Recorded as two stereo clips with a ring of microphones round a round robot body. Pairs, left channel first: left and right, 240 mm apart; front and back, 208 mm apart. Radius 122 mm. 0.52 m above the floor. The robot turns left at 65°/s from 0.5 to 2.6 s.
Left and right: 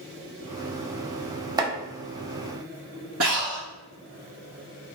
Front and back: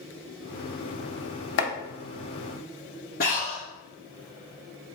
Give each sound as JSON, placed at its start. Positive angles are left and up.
{"t": 1.6, "sound": "chopping", "azimuth_deg": -15, "distance_m": 0.5}
{"t": 3.2, "sound": "breathing", "azimuth_deg": -55, "distance_m": 1.2}